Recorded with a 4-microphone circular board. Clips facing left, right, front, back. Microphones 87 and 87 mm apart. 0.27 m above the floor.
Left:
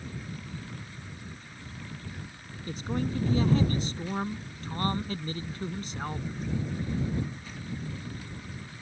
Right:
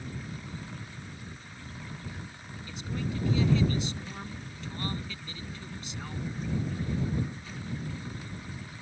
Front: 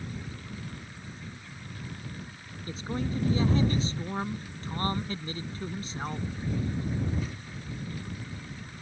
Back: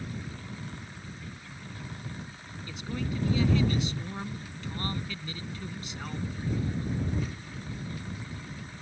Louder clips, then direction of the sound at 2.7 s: Left 5 dB, front 2 dB; 50° left.